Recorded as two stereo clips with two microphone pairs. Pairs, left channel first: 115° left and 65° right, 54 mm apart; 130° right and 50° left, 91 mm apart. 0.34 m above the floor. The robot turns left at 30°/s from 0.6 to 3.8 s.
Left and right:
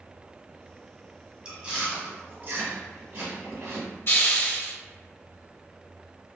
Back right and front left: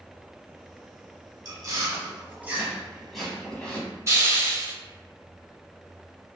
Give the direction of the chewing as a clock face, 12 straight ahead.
12 o'clock.